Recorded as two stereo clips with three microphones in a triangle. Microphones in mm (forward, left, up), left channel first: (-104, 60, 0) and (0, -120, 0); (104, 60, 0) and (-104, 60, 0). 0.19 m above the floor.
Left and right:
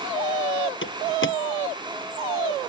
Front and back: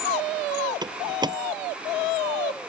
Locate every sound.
0.8 s a door slam: 110° left